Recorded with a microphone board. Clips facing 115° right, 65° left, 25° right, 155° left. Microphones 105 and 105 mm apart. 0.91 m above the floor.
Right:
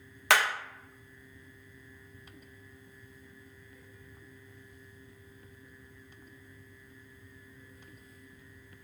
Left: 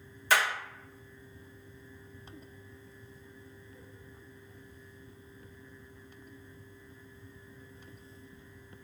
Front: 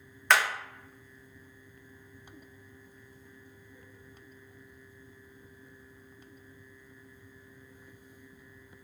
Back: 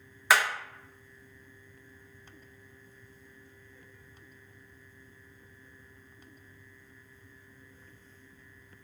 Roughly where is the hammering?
Behind right.